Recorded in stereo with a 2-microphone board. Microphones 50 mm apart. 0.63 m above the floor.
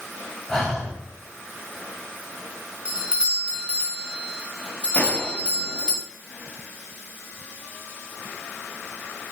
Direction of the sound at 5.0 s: 30° left (ahead or behind).